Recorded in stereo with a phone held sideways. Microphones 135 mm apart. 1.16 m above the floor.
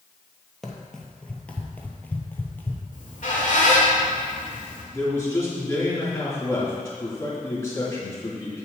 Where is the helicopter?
I don't hear a helicopter.